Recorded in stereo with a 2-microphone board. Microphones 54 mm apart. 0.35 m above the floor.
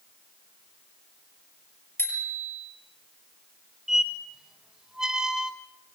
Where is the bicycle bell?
45° left (ahead or behind), 5.5 m.